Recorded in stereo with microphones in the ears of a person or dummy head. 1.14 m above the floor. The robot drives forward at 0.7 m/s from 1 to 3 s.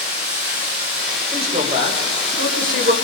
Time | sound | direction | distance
0.0 | running water | 65° right (ahead or behind) | 8.5 m
1.3 | a man speaking | 40° right (ahead or behind) | 3 m